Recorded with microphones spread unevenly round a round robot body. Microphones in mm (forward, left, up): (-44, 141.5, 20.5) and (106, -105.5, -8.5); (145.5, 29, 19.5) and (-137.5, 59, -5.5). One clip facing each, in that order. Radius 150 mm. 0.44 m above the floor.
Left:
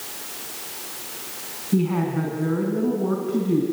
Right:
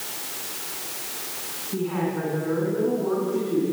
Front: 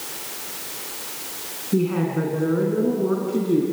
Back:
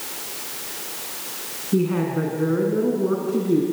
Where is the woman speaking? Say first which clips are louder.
Left 4 dB, even; 85° left, 4 m.